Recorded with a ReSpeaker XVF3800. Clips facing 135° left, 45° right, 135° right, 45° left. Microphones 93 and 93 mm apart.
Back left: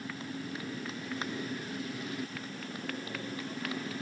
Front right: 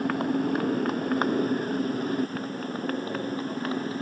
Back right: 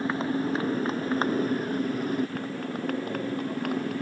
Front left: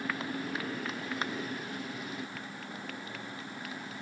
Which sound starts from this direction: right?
A motorcycle, at 0.0 s.